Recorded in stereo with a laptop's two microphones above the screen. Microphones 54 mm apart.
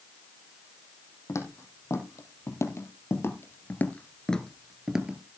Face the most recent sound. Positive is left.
turn(degrees=-20)  # may be behind; listen again after turning